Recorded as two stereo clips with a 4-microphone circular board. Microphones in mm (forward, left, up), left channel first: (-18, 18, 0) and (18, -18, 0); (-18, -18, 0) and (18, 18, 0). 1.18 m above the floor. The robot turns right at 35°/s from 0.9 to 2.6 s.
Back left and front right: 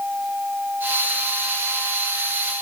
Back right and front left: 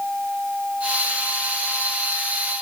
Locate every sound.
Only background noise.